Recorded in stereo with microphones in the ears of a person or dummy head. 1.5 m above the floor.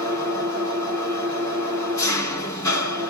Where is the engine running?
20° left (ahead or behind), 2.5 m.